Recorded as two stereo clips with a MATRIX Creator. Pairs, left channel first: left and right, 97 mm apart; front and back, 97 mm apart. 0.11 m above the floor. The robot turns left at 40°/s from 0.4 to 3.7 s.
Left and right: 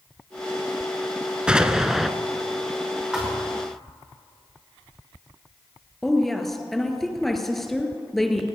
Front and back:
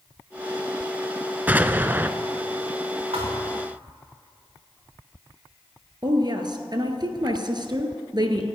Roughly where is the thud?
Behind.